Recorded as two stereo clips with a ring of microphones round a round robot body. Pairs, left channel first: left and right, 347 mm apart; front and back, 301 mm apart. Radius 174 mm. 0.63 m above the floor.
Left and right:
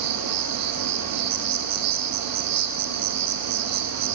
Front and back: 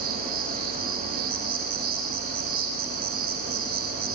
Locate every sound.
0.0 s an insect: 115° right, 4 m